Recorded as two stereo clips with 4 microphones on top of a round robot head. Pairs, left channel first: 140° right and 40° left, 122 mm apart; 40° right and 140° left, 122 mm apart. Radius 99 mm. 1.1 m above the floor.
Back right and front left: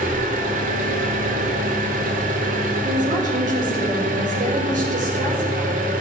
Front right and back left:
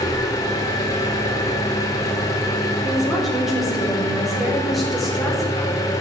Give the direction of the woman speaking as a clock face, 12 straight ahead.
10 o'clock.